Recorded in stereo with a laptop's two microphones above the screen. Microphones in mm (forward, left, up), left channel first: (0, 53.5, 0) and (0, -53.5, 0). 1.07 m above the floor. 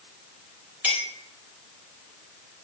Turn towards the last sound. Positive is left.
turn(degrees=-15)  # may be behind; listen again after turning